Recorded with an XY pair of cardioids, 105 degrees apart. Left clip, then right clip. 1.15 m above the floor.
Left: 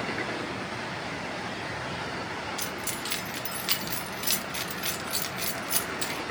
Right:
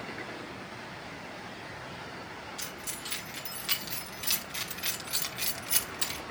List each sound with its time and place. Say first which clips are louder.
2.6 s keys jangling: left 6 dB; 50° left, 2.5 m; by 6.2 s 10° right, 2 m